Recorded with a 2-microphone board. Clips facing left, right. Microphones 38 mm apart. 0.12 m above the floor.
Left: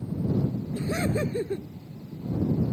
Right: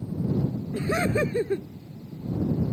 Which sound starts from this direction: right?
Laughter, at 0.7 s.